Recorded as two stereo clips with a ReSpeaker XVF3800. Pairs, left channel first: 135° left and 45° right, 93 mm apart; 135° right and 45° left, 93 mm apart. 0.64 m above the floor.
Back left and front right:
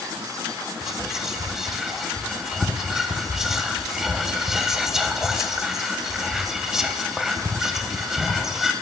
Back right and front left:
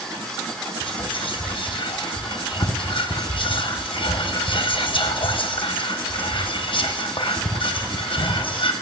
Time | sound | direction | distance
0.8 | whispering | 130° right | 1.0 m